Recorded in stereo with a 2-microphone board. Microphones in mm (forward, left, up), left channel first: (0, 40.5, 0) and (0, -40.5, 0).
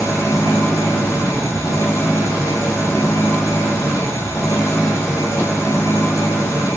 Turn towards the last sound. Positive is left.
turn(degrees=35)  # may be behind; listen again after turning